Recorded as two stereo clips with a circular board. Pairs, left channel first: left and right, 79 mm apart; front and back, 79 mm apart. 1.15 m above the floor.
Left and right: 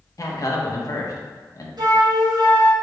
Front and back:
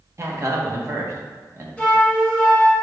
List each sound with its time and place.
0.2 s a man speaking: 130° left, 1.0 m
1.8 s a flute: 75° right, 1.2 m